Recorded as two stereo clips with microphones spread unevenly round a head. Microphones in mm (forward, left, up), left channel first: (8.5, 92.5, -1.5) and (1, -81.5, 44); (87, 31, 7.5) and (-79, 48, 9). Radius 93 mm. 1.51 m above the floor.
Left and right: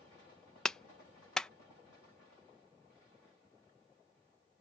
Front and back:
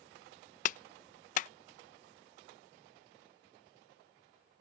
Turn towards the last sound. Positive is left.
turn(degrees=-15)